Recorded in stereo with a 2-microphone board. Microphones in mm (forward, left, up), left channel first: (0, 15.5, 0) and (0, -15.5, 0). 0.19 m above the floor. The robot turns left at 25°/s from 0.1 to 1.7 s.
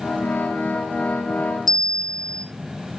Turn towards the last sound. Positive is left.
turn(degrees=10)  # may be behind; listen again after turning